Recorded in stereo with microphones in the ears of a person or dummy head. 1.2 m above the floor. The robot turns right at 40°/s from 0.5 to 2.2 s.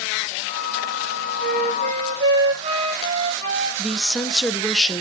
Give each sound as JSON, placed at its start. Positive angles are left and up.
{"t": 1.4, "sound": "a flute", "azimuth_deg": -60, "distance_m": 2.5}
{"t": 3.8, "sound": "a woman speaking", "side_deg": 0, "distance_m": 0.8}